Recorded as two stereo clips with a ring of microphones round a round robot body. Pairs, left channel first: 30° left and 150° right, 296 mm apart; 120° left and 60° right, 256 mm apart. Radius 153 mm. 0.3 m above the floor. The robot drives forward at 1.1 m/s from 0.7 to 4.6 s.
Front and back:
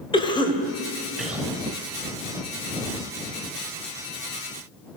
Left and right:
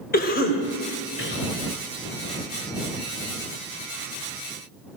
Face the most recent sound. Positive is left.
turn(degrees=165)